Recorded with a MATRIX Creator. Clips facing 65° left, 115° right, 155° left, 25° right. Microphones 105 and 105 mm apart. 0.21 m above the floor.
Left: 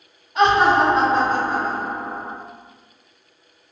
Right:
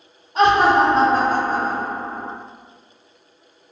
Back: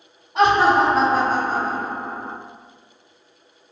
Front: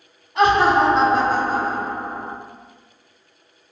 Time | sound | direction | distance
0.3 | laughter | 150° right | 1.2 m